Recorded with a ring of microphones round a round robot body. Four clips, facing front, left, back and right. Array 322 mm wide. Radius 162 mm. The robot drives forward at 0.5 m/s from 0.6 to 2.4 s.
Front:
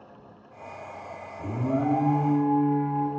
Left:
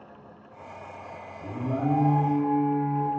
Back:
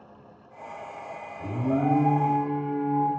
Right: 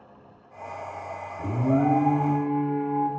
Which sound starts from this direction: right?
An alarm, at 1.4 s.